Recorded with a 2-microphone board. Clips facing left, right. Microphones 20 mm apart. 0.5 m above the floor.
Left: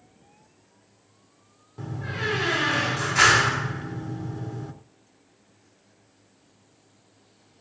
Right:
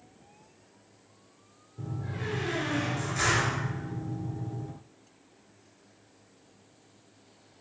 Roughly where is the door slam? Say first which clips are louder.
Left 7 dB; left.